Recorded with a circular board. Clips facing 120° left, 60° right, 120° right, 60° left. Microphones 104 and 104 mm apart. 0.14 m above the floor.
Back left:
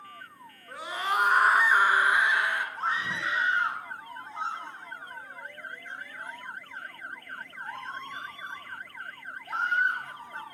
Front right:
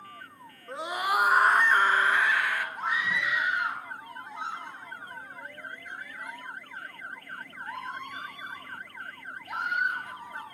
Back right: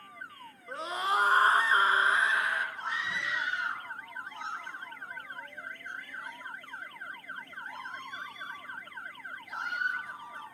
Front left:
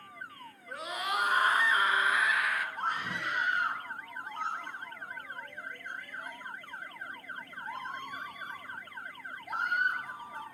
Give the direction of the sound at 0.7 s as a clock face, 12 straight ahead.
3 o'clock.